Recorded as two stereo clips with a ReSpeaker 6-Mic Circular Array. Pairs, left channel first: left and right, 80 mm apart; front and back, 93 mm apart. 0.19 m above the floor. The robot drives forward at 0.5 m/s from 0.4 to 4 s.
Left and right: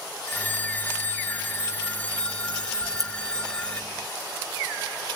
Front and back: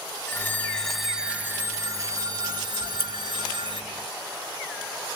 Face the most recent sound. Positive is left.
turn(degrees=-135)